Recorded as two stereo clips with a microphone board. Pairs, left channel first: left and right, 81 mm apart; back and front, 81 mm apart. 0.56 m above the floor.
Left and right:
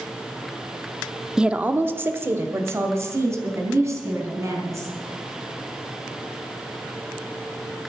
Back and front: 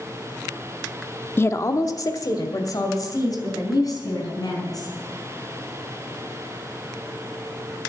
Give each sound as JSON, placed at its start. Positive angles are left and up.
{"t": 1.4, "sound": "a woman speaking", "azimuth_deg": -165, "distance_m": 0.6}